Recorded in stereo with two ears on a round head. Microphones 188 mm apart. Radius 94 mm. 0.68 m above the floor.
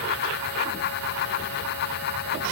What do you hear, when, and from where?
Only background noise.